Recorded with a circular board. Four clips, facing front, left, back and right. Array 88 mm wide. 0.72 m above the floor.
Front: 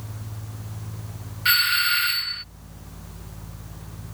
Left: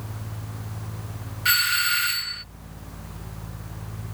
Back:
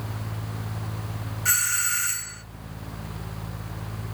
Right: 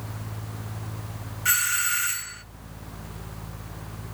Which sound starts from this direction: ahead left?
A doorbell, at 1.4 s.